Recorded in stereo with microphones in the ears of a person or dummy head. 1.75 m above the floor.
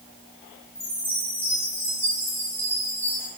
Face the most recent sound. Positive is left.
turn(degrees=10)  # may be behind; listen again after turning